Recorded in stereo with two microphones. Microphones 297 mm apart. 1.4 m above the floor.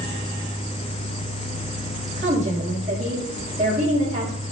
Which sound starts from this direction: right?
A woman speaking, at 2.2 s.